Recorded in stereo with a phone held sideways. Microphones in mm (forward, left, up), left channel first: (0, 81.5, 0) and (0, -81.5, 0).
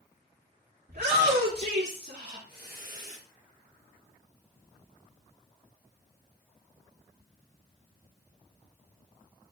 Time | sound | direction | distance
0.9 | a shout | 70° right (ahead or behind) | 2.5 m